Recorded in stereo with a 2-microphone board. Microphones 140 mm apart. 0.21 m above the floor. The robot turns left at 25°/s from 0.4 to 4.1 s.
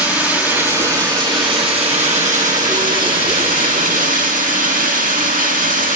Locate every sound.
0.0 s running water: 10° right, 3.5 m; by 6.0 s 100° right, 3.5 m